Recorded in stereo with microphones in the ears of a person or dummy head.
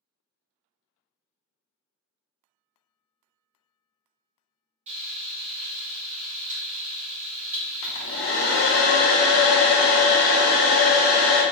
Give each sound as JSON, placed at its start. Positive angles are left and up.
{"t": 4.9, "sound": "frying", "side_deg": -35, "distance_m": 0.7}
{"t": 7.8, "sound": "a hair dryer", "side_deg": 75, "distance_m": 0.8}